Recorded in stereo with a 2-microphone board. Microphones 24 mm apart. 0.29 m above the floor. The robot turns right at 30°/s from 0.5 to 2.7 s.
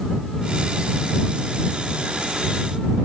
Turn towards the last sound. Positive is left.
No sound to turn to.